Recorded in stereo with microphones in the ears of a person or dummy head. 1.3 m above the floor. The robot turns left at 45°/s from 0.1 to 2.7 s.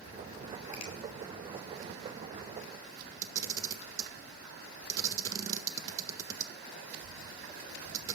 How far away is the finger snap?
About 2.5 m.